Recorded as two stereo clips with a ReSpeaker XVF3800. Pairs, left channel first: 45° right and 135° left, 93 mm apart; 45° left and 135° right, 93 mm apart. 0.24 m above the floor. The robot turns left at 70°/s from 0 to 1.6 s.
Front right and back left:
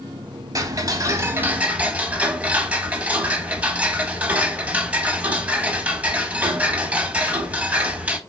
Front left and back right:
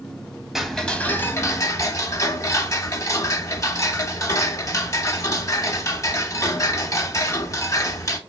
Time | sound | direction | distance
0.6 | ticking | 140° left | 0.7 m